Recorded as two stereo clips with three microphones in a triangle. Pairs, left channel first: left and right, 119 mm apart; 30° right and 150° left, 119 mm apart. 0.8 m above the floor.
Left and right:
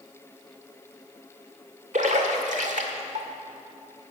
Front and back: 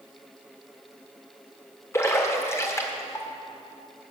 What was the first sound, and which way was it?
A splash, 100° right.